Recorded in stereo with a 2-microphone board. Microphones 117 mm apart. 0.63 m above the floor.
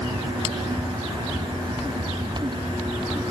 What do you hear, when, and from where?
Only background noise.